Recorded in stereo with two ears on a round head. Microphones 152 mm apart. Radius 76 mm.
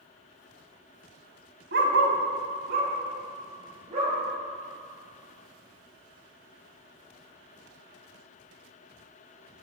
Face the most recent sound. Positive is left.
turn(degrees=-40)  # may be behind; listen again after turning